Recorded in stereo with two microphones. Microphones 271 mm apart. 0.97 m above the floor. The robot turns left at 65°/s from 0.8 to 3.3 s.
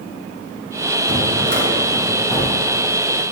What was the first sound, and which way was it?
A drawer, 110° right.